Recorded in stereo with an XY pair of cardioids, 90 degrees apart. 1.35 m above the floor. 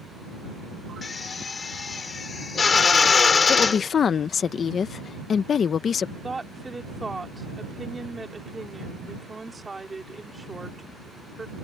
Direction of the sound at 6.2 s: 20° right.